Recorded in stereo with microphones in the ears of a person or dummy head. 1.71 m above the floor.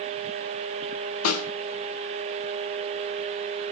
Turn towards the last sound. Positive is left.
turn(degrees=85)